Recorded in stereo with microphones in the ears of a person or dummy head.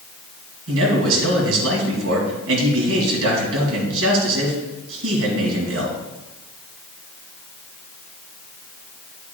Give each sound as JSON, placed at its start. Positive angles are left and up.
{"t": 0.7, "sound": "a man speaking", "side_deg": -75, "distance_m": 3.0}